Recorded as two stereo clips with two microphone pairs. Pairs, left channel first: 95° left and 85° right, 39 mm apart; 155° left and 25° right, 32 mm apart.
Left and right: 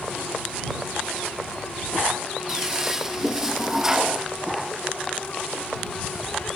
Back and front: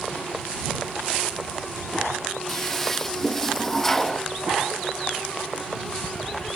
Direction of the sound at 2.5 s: 140° right.